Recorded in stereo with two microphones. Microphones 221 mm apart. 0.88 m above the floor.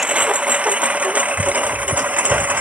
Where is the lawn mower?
5° right (ahead or behind).